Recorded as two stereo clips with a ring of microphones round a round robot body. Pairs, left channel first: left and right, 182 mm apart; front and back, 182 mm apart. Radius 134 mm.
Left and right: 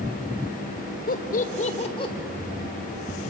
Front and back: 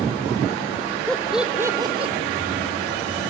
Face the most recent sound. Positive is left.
turn(degrees=145)